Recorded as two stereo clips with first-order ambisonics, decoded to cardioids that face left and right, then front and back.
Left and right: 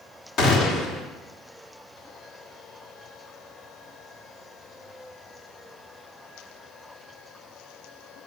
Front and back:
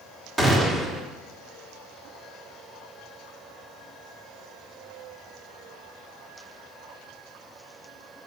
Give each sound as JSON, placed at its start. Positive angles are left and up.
{"t": 0.4, "sound": "a gunshot", "azimuth_deg": 110, "distance_m": 1.5}